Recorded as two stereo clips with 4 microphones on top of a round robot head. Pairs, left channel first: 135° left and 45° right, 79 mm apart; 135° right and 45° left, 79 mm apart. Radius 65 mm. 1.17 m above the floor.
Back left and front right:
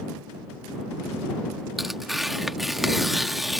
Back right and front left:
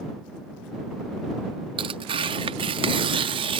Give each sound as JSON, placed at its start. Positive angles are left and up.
{"t": 1.8, "sound": "tearing paper", "azimuth_deg": 45}